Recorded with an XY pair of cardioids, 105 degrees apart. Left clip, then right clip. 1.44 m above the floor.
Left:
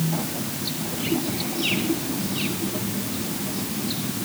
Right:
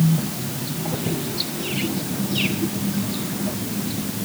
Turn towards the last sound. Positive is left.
No sound to turn to.